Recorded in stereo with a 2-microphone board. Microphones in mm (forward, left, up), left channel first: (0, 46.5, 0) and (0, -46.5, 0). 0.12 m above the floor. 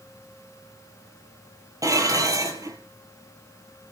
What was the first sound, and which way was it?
Dishes clattering, 35° right (ahead or behind).